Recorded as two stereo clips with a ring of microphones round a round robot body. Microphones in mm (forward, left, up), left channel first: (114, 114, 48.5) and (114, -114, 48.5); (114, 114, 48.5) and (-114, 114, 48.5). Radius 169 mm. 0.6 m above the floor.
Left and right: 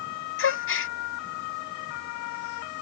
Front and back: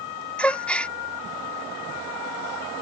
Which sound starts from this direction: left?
A gasp, at 0.4 s.